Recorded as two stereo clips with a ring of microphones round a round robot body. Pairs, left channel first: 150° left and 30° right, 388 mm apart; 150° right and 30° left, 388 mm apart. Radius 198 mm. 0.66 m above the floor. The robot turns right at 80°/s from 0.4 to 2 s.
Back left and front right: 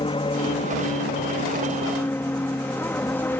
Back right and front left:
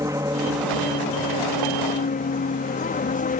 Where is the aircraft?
100° left; by 3.4 s 135° right.